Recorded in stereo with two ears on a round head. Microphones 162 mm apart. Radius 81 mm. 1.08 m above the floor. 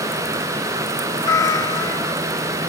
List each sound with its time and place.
1.2 s a cat meowing: 20° left (ahead or behind), 1.1 m